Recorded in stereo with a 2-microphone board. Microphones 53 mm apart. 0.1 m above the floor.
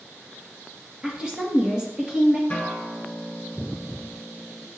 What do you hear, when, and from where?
1.0 s a woman speaking: 15° right (ahead or behind), 1.8 m
2.5 s a guitar: 30° left (ahead or behind), 1.8 m